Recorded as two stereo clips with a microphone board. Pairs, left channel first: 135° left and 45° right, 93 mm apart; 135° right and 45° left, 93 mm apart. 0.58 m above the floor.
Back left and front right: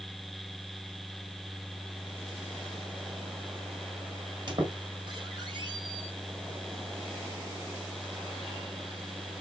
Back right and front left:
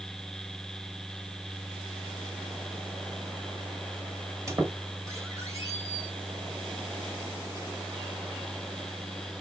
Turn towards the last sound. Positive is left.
turn(degrees=-10)